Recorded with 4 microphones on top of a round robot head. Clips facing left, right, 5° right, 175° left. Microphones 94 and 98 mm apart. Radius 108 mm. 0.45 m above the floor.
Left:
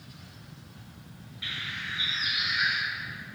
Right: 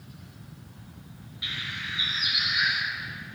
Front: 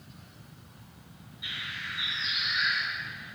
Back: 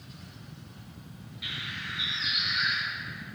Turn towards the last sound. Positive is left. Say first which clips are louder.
# right 1 dB, even
turn(degrees=-165)